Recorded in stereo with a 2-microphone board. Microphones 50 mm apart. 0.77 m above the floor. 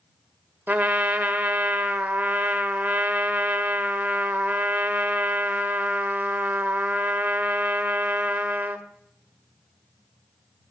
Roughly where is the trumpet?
Right.